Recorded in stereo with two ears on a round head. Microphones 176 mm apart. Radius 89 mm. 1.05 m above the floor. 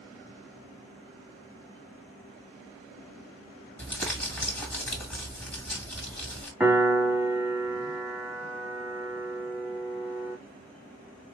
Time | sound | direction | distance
3.8 | crumpling | 10° left (ahead or behind) | 1.5 m
6.6 | a piano | 10° right (ahead or behind) | 1.7 m